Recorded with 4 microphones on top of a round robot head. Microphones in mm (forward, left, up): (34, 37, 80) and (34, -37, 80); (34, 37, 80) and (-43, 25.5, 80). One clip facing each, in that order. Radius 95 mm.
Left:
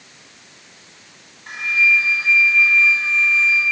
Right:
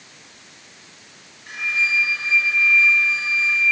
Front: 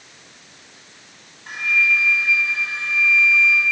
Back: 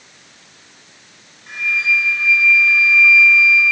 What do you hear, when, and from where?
1.5 s a flute: 40° left, 4 m